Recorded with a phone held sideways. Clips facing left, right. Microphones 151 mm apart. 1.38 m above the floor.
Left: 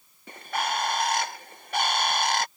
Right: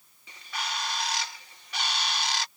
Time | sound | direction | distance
0.3 | a bird | 55° left (ahead or behind) | ?